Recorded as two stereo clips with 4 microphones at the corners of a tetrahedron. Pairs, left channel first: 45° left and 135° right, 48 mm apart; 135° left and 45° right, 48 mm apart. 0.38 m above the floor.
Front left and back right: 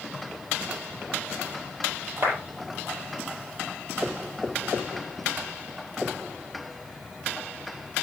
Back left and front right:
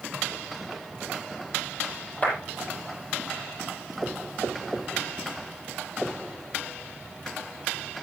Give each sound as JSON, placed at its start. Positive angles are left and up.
{"t": 2.2, "sound": "a clap", "azimuth_deg": -165, "distance_m": 8.5}